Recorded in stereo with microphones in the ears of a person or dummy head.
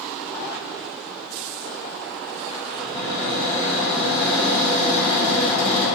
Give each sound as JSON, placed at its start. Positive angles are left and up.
{"t": 2.8, "sound": "a cupboard door", "side_deg": -45, "distance_m": 1.2}